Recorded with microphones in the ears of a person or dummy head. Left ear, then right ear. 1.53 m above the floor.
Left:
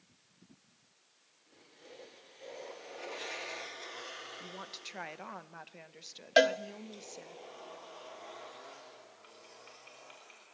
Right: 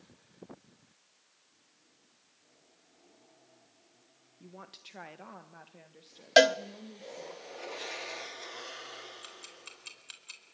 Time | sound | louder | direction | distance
4.4 | a woman speaking | left 6 dB | 15° left (ahead or behind) | 1.2 m
6.4 | a cowbell | right 4 dB | 15° right (ahead or behind) | 0.7 m
9.2 | ticking | right 6 dB | 80° right | 4 m